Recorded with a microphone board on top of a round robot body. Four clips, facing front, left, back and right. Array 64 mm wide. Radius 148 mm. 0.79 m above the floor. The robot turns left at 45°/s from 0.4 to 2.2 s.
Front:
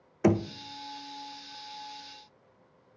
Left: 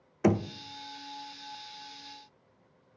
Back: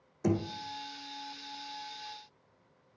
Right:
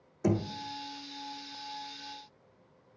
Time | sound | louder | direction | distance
0.2 | knocking | left 3 dB, front 6 dB | 45° left | 0.5 m